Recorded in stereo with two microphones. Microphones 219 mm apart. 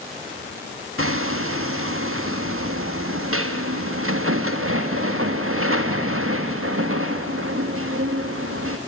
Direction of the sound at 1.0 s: 75° right (ahead or behind).